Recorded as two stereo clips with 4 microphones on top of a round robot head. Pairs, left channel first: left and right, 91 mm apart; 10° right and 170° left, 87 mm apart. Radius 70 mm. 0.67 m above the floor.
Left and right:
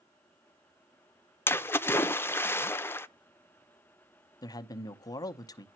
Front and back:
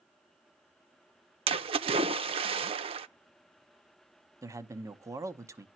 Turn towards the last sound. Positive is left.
turn(degrees=125)